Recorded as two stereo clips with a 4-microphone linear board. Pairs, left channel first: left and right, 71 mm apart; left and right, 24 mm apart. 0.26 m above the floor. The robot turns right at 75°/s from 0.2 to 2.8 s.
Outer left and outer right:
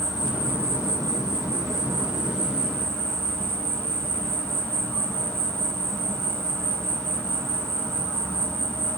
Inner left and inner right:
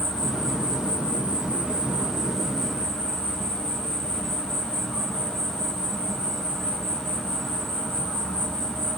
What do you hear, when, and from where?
0.0 s an insect: 175° right, 2 m; by 9.0 s 20° left, 2 m